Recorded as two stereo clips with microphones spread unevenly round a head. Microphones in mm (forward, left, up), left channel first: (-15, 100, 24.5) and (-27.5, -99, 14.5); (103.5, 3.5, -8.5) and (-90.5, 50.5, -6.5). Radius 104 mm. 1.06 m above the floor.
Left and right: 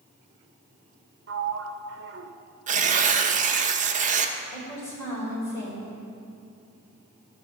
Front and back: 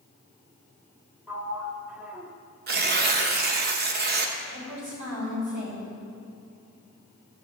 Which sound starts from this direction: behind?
A woman speaking, at 4.5 s.